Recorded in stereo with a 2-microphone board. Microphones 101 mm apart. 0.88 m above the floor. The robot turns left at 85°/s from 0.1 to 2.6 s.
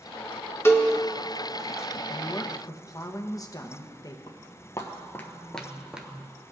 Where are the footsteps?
40° left (ahead or behind), 1.2 m; by 6.3 s 20° right (ahead or behind), 0.8 m.